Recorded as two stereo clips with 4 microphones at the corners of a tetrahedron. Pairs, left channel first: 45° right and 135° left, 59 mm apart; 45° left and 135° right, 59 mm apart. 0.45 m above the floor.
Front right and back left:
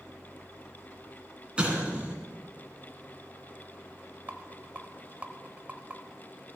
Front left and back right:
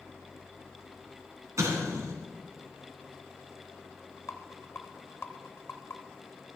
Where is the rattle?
75° left, 0.8 m.